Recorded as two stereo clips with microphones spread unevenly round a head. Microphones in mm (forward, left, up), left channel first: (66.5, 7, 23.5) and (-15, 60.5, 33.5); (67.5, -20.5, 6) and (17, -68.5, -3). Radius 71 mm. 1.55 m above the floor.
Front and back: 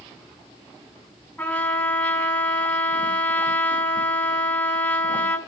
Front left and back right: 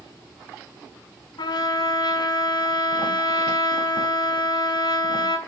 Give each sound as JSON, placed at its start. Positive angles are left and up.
{"t": 1.4, "sound": "a trumpet", "azimuth_deg": 45, "distance_m": 5.0}